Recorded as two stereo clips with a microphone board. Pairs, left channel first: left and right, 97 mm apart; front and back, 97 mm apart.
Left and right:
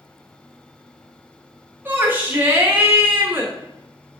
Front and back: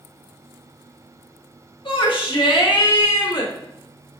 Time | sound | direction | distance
1.9 | a shout | 25° right | 1.4 m